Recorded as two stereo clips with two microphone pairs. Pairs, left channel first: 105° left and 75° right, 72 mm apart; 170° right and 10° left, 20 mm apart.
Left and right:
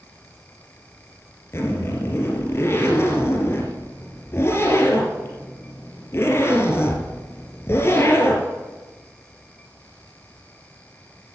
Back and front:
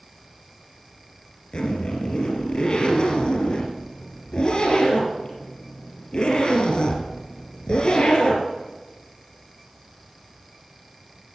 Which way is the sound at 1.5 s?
160° left.